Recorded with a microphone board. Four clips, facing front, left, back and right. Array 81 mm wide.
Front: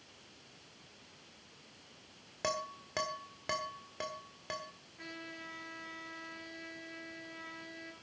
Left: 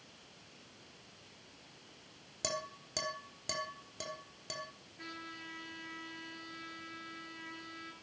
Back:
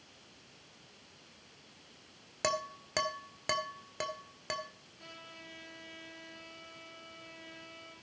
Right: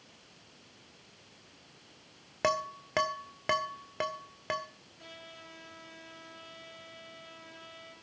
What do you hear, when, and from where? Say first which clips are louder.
2.4 s dishes clattering: right 10 dB, back 3 dB; 100° right, 1.6 m
5.0 s a trumpet: left 3 dB, front 5 dB; 40° left, 9 m